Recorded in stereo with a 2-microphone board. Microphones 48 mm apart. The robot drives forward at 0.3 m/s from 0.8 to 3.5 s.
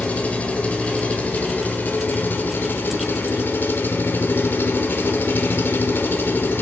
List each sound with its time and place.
0.0 s an engine running: 30° left (ahead or behind), 1.0 m; by 6.6 s 45° left (ahead or behind), 0.7 m